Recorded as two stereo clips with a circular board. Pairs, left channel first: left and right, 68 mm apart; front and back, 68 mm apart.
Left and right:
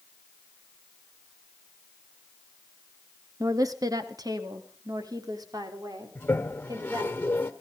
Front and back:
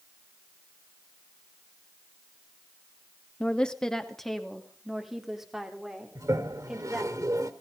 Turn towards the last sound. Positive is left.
turn(degrees=150)